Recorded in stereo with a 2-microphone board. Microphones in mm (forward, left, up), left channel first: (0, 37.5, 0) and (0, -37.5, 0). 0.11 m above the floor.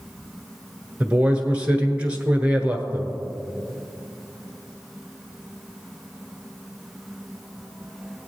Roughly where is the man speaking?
Centre.